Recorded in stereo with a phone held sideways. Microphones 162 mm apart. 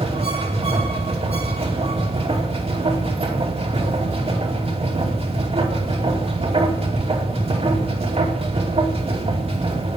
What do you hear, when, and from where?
0.0 s a machine running: 40° right (ahead or behind), 2.5 m